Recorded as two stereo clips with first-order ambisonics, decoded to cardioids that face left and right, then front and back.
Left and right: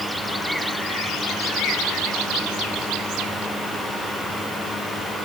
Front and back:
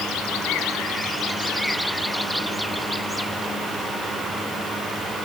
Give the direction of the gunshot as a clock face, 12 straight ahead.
No gunshot in this recording.